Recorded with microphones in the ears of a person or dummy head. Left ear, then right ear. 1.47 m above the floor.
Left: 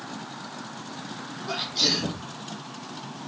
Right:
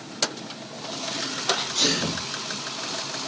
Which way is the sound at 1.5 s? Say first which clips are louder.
Right 1 dB; 60° right (ahead or behind).